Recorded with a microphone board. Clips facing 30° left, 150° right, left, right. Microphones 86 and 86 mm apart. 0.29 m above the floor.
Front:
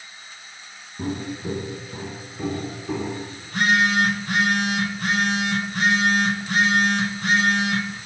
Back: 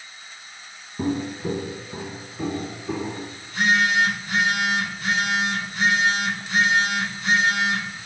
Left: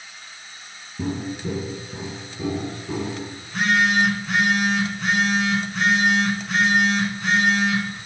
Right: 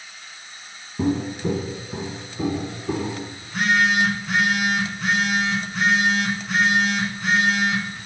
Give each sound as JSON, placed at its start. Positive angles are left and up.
{"t": 1.0, "sound": "footsteps", "azimuth_deg": -100, "distance_m": 0.5}
{"t": 3.4, "sound": "a phone buzzing", "azimuth_deg": 0, "distance_m": 1.2}